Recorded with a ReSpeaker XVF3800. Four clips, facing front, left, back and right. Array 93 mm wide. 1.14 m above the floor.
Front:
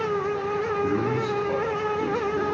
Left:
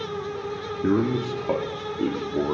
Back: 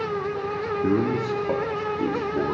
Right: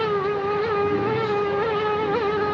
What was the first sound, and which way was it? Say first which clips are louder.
A man speaking: right 1 dB, back 2 dB; 120° left.